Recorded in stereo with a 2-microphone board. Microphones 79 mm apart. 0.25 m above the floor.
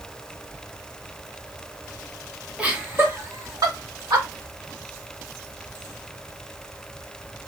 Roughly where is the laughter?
Centre.